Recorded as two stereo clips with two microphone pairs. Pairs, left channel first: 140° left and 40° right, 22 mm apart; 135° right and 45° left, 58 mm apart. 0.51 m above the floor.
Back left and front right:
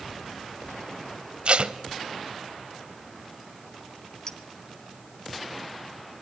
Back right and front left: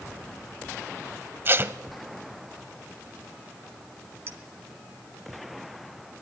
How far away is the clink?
About 1.8 m.